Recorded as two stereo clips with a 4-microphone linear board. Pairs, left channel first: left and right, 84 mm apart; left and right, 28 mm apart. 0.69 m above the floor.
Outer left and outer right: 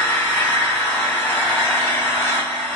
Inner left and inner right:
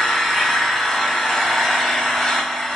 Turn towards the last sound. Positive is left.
turn(degrees=15)  # may be behind; listen again after turning